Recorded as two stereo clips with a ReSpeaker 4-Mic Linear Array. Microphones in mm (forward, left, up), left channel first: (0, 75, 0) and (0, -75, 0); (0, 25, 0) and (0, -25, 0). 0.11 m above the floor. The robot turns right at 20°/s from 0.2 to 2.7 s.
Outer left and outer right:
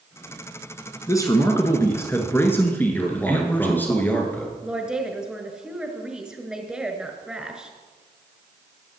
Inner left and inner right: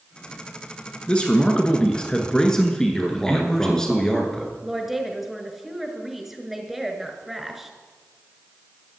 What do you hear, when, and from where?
1.1 s a man speaking: 20° left (ahead or behind), 1.1 m; by 3.9 s 15° left (ahead or behind), 1.1 m
2.9 s a man speaking: 10° left (ahead or behind), 1.7 m
4.6 s a woman speaking: 5° right (ahead or behind), 1.4 m